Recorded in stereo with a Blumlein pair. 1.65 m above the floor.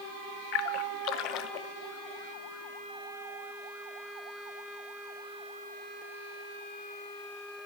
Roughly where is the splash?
Ahead left.